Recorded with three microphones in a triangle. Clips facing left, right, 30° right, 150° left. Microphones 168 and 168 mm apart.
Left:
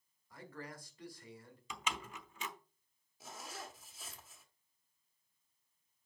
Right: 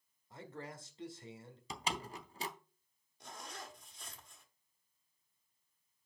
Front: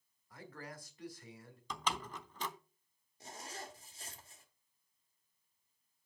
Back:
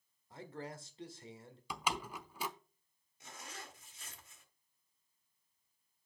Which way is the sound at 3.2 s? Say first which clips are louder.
Left 1 dB, front 3 dB; 5° left.